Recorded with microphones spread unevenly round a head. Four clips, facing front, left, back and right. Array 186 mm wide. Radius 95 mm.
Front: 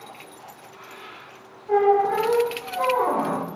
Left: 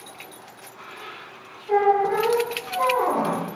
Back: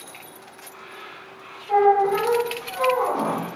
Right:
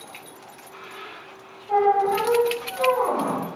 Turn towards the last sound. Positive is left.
turn(degrees=40)